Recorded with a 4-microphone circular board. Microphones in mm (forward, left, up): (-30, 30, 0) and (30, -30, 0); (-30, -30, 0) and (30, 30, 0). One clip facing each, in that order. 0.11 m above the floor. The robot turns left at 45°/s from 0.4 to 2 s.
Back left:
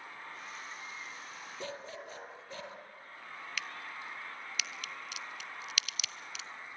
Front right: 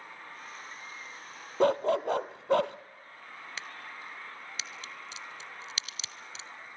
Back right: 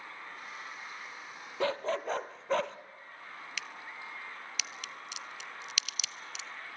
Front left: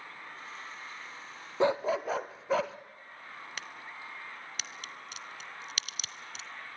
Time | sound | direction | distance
1.6 | a dog barking | 25° right | 0.8 m
3.6 | a crack | 5° left | 0.6 m